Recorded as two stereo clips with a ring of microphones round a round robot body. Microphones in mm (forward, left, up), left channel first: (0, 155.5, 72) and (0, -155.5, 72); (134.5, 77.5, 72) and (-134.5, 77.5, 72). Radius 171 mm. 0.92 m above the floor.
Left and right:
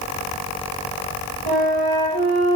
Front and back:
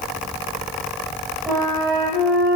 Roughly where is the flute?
Right.